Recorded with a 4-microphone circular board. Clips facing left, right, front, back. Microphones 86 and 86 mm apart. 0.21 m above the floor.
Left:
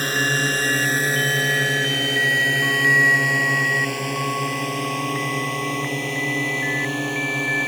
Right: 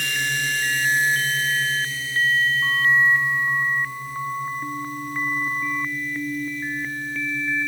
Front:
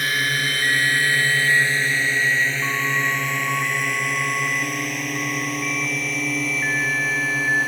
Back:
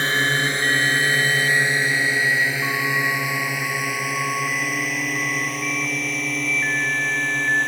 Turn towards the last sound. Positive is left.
turn(degrees=85)